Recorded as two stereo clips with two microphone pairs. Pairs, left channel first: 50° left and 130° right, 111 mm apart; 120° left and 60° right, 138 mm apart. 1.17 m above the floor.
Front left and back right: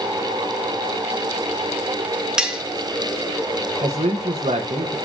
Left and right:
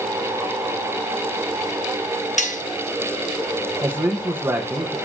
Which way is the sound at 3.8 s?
130° right.